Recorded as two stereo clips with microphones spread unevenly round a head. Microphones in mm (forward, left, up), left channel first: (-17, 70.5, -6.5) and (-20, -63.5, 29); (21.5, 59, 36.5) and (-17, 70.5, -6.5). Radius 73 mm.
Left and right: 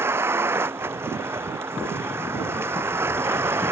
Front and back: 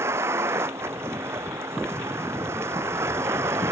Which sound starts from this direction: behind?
A vehicle, at 0.0 s.